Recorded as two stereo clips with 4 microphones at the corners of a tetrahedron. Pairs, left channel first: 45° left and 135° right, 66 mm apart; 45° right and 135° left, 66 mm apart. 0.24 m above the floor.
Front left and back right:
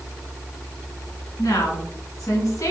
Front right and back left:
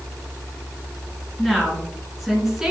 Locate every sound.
1.4 s a woman speaking: 40° left, 3 m; by 2.7 s 55° left, 2 m